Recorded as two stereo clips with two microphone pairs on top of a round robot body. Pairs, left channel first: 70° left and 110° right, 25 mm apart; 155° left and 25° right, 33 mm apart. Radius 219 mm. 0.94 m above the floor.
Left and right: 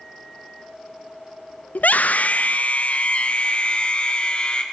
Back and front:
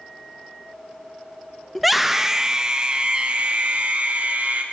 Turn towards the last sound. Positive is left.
turn(degrees=20)